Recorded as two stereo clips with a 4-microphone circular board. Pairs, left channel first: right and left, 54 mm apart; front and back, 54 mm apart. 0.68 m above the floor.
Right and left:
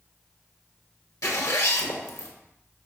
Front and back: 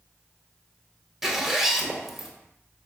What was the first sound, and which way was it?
A zipper, 95° right.